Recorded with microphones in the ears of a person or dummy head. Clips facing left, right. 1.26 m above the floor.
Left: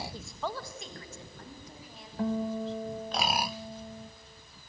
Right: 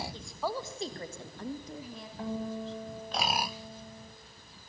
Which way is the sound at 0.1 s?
10° left (ahead or behind).